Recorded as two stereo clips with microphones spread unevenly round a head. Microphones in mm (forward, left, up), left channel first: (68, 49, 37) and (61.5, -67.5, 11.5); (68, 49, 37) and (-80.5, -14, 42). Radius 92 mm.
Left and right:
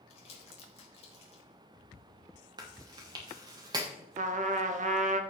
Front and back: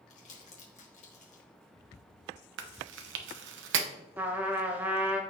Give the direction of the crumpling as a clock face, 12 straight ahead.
10 o'clock.